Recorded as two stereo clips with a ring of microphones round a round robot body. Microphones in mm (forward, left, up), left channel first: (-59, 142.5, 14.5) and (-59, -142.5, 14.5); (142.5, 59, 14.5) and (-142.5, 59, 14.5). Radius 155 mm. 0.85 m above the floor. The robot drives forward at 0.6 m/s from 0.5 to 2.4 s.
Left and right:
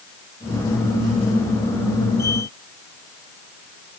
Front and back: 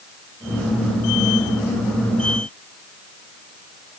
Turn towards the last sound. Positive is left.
No sound to turn to.